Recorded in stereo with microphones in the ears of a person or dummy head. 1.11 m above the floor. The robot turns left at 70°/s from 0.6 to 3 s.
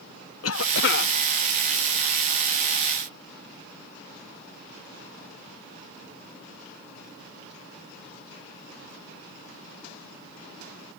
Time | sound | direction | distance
0.4 | a cough | 90° left | ?